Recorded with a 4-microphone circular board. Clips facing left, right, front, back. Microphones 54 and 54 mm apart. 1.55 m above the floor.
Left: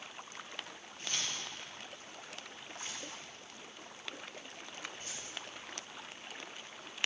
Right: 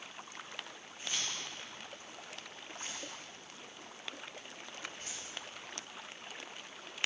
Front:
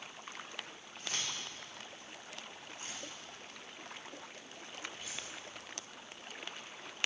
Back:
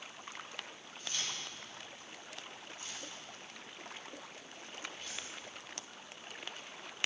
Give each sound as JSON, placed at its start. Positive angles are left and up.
{"t": 1.0, "sound": "keys jangling", "azimuth_deg": -15, "distance_m": 3.0}